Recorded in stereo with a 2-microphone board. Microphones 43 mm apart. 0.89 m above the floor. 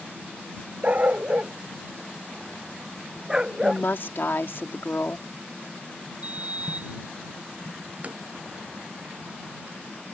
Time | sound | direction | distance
0.8 | a dog barking | 35° right (ahead or behind) | ?
3.6 | a woman speaking | 60° left (ahead or behind) | ?
6.2 | a sliding door | 35° right (ahead or behind) | ?
8.0 | tapping | 35° right (ahead or behind) | ?